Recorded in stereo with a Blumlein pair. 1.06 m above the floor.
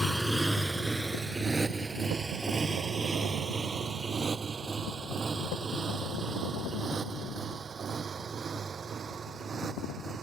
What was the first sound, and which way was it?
A motorcycle, straight ahead.